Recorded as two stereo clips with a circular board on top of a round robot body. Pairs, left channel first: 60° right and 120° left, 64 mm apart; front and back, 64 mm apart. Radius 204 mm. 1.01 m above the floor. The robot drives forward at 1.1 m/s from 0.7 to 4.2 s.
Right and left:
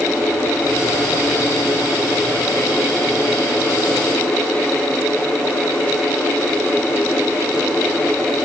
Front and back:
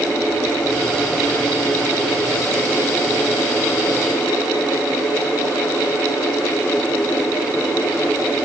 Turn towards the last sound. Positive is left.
No sound to turn to.